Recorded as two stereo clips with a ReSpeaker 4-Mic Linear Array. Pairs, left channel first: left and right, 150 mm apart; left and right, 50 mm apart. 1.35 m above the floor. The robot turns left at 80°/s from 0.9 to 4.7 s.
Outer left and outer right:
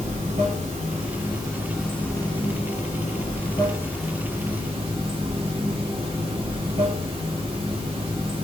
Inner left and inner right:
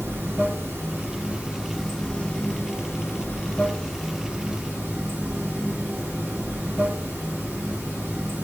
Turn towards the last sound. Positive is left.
turn(degrees=-50)